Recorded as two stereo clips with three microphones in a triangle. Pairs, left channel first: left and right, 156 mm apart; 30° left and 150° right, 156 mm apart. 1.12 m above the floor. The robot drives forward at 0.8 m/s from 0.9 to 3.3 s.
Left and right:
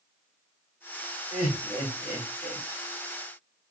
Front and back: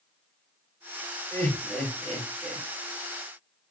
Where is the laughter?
100° left, 2.5 m; by 2.6 s 120° left, 3 m.